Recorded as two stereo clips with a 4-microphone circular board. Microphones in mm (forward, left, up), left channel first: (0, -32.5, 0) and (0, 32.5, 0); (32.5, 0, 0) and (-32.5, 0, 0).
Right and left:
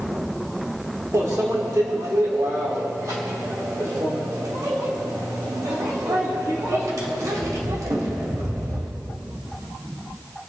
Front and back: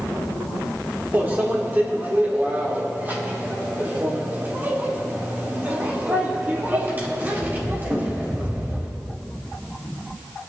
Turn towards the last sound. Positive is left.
turn(degrees=120)